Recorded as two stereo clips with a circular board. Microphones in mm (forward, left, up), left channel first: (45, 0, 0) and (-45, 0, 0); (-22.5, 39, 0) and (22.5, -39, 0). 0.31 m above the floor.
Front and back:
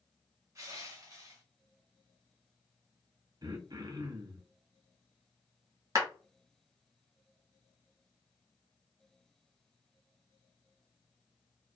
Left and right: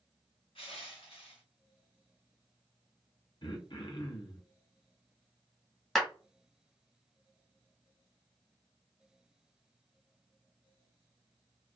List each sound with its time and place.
0.6 s crushing: 125° left, 0.9 m
3.4 s throat clearing: 140° left, 0.7 m
6.0 s a clap: 155° right, 1.0 m